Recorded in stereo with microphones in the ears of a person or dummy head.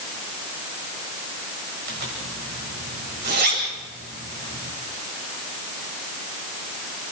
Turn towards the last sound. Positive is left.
turn(degrees=-55)  # may be behind; listen again after turning